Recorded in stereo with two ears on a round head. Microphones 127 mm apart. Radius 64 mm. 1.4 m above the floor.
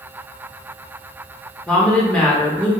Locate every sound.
1.7 s a woman speaking: 10° left (ahead or behind), 0.9 m